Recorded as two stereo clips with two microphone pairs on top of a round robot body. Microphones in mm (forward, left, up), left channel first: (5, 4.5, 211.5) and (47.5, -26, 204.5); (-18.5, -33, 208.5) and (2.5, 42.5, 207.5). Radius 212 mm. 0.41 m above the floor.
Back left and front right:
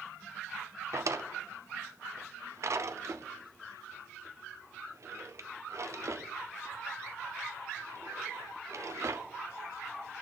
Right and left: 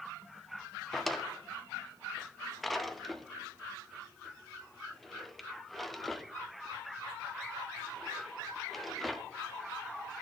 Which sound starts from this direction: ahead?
A drawer, at 0.9 s.